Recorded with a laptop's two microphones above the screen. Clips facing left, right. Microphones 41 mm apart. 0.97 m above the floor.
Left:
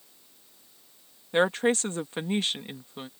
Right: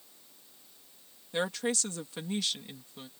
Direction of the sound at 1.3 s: 35° left (ahead or behind).